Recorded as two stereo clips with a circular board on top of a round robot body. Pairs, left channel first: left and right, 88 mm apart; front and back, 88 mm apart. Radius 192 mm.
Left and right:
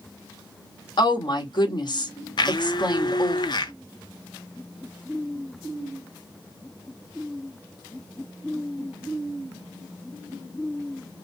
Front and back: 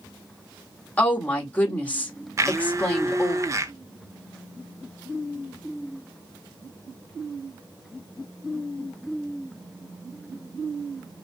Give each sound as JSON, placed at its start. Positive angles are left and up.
{"t": 1.0, "sound": "a woman speaking", "azimuth_deg": 70, "distance_m": 1.9}
{"t": 2.4, "sound": "a blender", "azimuth_deg": 125, "distance_m": 0.6}